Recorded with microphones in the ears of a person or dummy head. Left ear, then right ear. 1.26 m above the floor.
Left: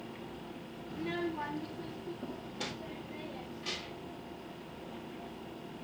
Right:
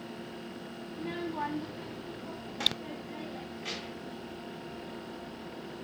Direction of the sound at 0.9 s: 45° left (ahead or behind).